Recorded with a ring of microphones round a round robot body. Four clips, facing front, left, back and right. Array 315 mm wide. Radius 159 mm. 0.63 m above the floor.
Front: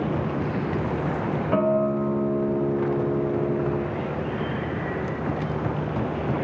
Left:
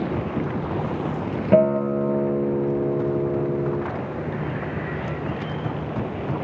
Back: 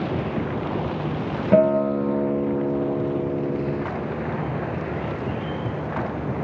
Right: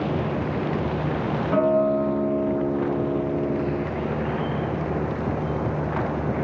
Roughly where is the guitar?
Behind left.